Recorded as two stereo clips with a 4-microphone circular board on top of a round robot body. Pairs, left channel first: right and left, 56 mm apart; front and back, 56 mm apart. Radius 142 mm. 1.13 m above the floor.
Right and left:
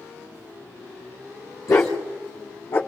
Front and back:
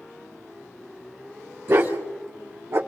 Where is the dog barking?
130° right, 2 m; by 2.8 s 125° right, 3.5 m.